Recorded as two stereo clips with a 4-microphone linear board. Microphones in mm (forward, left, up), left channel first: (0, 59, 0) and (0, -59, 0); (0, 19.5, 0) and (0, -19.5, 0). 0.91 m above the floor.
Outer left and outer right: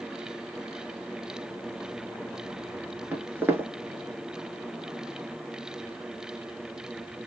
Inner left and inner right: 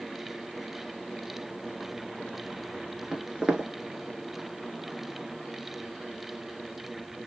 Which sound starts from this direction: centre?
Footsteps, at 3.1 s.